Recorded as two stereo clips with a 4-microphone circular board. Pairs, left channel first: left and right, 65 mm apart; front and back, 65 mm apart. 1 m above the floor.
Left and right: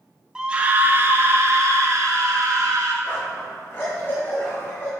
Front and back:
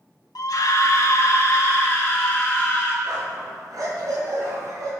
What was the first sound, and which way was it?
A scream, 10° right.